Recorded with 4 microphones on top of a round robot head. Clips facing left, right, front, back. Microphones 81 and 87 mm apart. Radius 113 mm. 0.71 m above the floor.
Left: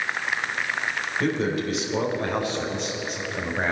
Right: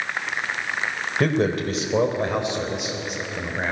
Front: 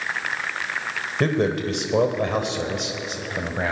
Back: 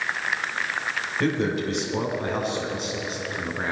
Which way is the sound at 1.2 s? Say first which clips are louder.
Right 4 dB, front 3 dB; 50° right.